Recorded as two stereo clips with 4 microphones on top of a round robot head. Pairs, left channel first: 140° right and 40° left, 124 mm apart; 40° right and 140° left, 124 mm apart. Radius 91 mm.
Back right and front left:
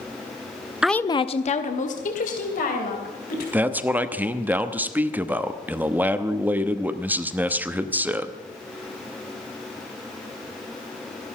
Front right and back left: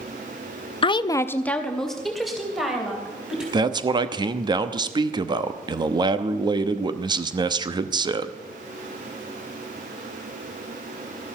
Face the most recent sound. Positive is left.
turn(degrees=110)